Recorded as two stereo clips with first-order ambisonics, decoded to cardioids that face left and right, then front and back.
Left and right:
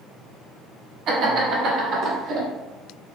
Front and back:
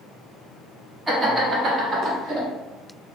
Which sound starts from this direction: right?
Laughter, at 1.1 s.